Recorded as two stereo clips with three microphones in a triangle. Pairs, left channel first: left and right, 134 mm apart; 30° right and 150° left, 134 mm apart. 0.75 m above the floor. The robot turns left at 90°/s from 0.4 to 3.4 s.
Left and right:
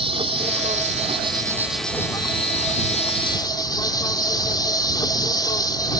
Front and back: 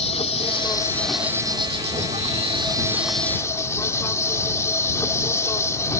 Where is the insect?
55° right; by 6.0 s 35° left.